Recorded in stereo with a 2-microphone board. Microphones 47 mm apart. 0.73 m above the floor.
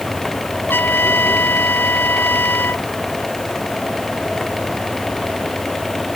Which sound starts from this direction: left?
A trumpet, at 0.7 s.